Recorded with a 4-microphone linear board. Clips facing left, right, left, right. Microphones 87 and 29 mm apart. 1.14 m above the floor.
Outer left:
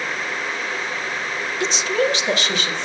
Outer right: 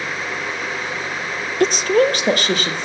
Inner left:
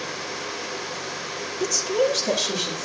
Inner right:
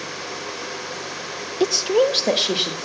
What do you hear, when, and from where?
1.6 s a woman speaking: 50° right (ahead or behind), 0.6 m